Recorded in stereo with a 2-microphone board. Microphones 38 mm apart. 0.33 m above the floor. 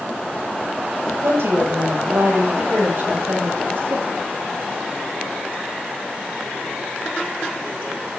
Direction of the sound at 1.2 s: 65° right (ahead or behind).